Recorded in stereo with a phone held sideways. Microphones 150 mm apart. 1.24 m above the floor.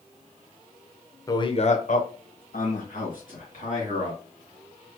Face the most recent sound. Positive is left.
turn(degrees=60)  # may be behind; listen again after turning